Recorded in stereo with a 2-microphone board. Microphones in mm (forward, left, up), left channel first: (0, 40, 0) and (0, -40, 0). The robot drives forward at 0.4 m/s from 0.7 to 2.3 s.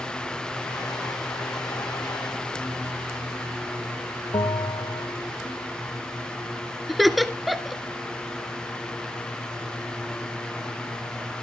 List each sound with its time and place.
4.3 s a bell: 70° left (ahead or behind), 0.9 m
6.9 s laughter: centre (ahead or behind), 1.6 m